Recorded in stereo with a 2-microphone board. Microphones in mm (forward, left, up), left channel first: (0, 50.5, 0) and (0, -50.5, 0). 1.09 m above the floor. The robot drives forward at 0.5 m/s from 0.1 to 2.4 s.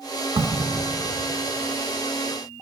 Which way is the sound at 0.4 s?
55° right (ahead or behind).